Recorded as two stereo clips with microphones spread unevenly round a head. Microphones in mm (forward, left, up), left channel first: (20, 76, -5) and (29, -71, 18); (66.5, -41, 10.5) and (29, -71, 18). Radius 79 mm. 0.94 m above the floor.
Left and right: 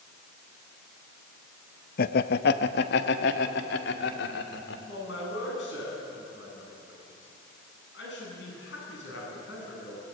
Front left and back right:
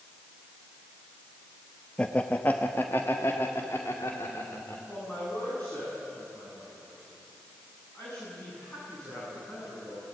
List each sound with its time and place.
2.0 s laughter: 110° left, 0.7 m; by 4.8 s 100° left, 2.5 m
4.9 s a man speaking: 120° left, 9 m